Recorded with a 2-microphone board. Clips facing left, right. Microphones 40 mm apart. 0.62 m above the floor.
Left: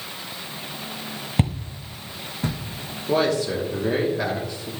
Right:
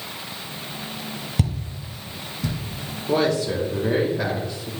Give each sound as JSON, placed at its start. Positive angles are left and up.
{"t": 1.4, "sound": "footsteps", "side_deg": 30, "distance_m": 0.7}
{"t": 3.1, "sound": "a man speaking", "side_deg": 5, "distance_m": 1.0}